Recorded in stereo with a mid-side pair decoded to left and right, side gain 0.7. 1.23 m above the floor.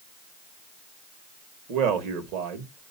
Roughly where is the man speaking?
Ahead right.